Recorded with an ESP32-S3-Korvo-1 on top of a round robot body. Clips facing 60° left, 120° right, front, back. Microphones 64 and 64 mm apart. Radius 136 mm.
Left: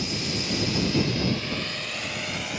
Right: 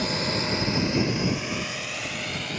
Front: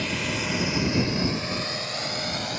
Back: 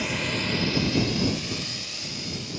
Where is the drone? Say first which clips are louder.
Right 3 dB, even; 95° right; by 2.6 s 25° right.